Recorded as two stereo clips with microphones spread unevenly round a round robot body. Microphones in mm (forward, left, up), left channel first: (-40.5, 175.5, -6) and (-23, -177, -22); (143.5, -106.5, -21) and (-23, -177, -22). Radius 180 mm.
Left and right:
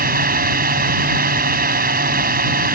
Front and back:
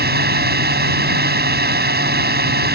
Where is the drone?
150° right.